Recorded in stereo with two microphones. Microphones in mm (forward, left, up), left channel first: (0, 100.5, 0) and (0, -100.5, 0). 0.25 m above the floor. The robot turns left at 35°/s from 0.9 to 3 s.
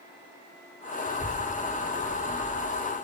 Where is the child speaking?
20° right (ahead or behind), 0.8 m; by 2.9 s 30° left (ahead or behind), 0.8 m.